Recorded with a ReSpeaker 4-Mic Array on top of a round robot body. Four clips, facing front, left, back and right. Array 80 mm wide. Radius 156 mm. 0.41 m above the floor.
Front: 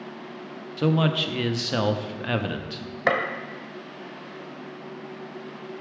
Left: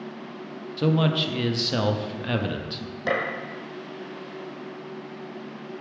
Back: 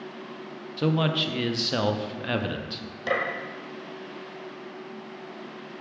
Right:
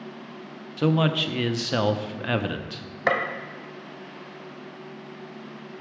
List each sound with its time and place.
0.8 s a man speaking: 75° right, 0.8 m
3.1 s a gunshot: 45° right, 1.1 m